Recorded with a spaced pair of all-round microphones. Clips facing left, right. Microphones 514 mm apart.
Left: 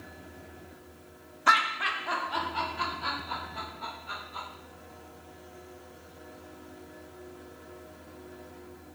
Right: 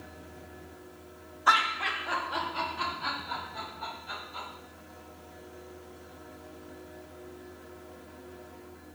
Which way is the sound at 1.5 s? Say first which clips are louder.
Left 1 dB; 50° left (ahead or behind).